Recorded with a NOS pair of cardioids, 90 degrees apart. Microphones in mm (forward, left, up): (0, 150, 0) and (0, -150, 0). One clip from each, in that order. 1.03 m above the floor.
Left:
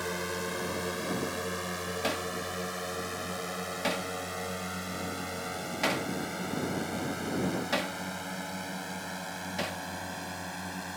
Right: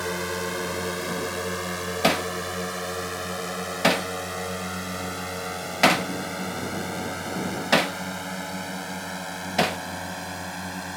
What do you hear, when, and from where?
0.0 s a drone: 40° right; by 11.0 s 35° right
2.0 s hammering: 60° right